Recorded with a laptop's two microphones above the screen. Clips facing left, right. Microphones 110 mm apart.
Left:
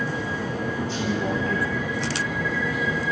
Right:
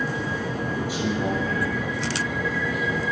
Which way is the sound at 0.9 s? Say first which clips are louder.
Right 1 dB; 10° right (ahead or behind).